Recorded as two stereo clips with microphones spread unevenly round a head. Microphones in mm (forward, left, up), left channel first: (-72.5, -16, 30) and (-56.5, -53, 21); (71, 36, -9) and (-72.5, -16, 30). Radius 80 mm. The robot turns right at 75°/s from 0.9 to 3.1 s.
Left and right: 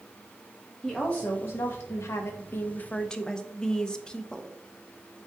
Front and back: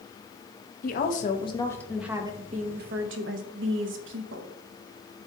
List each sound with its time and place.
0.8 s a woman speaking: 25° left, 0.8 m; by 4.5 s 170° right, 0.8 m